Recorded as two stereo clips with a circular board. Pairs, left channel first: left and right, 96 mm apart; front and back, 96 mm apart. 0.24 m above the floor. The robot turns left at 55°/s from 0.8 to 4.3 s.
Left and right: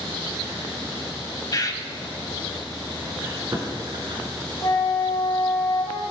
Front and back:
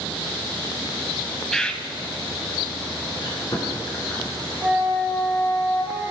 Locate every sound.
1.5 s a bird: 85° left, 0.6 m; by 1.8 s 65° left, 0.6 m
3.2 s chewing: 20° right, 2 m; by 4.5 s 80° right, 2 m
4.6 s a flute: 110° left, 3.5 m